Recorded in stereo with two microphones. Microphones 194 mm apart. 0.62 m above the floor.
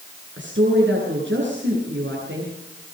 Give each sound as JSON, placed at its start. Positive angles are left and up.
{"t": 0.4, "sound": "a woman speaking", "side_deg": -85, "distance_m": 9.5}